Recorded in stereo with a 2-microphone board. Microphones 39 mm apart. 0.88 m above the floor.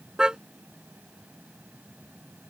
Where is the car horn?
20° right (ahead or behind).